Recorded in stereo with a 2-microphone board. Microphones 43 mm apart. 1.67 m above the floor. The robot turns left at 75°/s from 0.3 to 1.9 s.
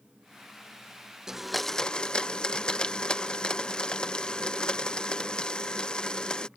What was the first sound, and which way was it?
A blender, 160° right.